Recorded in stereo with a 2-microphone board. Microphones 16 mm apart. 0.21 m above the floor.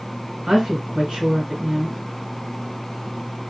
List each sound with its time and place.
0.5 s a woman speaking: 55° right (ahead or behind), 2.5 m